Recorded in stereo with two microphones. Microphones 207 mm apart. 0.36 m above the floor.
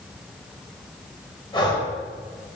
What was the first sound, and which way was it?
Breathing, 25° left (ahead or behind).